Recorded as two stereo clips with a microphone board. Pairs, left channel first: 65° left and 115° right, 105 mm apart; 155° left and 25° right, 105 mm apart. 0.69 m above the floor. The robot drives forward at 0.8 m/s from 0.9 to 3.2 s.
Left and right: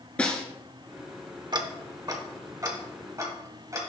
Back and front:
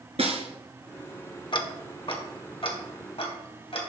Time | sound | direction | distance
0.2 | a snare drum | 10° right | 1.7 m
1.5 | ticking | 160° right | 0.8 m